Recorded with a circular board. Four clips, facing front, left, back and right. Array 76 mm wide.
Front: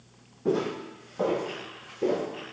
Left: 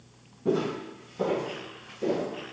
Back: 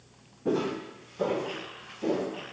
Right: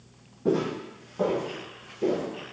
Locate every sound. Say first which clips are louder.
0.5 s footsteps: right 1 dB, front 1 dB; 55° right, 1.0 m; by 2.2 s 25° right, 1.6 m